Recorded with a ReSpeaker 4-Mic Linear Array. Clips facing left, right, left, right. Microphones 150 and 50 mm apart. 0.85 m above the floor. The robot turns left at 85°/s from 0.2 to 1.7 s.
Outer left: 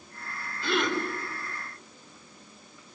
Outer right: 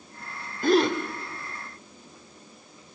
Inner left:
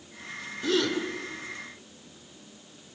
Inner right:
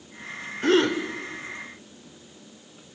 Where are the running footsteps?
I don't hear running footsteps.